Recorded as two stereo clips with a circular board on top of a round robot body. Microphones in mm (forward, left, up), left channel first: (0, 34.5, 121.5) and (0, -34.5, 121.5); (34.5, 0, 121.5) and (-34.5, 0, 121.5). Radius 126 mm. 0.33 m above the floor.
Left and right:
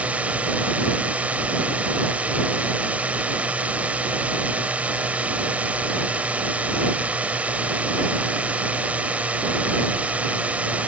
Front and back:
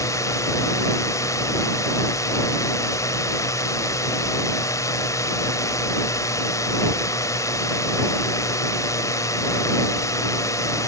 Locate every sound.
0.0 s a drone: 25° right